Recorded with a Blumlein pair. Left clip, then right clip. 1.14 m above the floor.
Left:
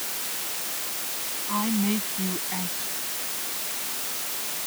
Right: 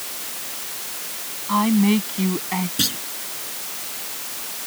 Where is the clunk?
50° right.